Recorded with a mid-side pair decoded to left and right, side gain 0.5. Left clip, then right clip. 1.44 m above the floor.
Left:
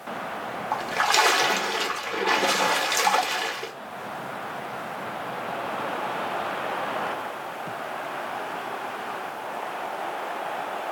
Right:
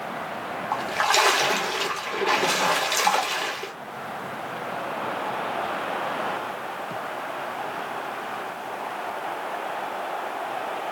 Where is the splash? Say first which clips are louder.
Even; 5° left, 1.3 m.